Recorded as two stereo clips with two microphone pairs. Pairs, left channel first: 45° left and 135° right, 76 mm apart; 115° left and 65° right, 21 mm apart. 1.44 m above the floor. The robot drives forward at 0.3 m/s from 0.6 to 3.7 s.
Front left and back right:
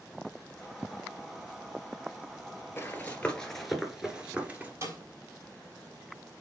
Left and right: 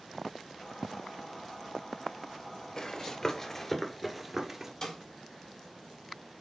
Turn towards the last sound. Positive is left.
turn(degrees=175)